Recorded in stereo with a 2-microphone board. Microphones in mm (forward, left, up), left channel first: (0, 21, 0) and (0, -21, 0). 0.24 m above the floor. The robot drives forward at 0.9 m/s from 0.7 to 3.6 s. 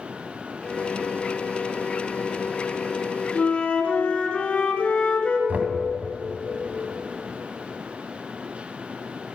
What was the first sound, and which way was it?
A flute, 35° left (ahead or behind).